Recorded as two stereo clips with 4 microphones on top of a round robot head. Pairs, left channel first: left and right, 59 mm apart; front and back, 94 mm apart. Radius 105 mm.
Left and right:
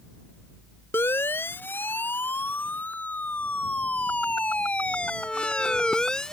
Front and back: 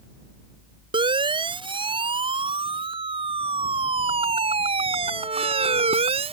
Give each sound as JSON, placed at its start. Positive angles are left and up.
{"t": 0.9, "sound": "a siren", "azimuth_deg": 150}